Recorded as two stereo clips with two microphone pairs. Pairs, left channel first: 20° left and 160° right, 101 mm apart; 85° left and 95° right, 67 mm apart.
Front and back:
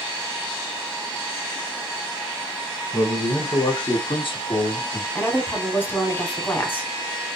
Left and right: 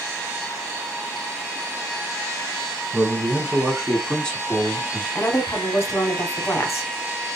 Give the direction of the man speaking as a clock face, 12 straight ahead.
1 o'clock.